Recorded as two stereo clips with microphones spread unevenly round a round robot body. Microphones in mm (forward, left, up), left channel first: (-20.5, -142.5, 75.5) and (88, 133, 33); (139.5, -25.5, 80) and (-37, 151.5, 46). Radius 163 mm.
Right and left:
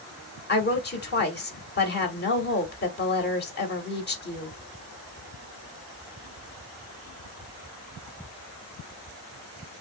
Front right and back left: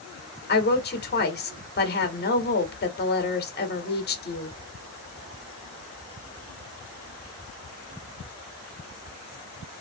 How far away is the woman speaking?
About 1.2 m.